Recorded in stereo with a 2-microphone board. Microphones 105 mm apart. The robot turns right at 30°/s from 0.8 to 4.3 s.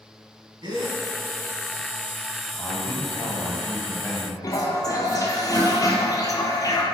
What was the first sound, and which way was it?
A gasp, 45° right (ahead or behind).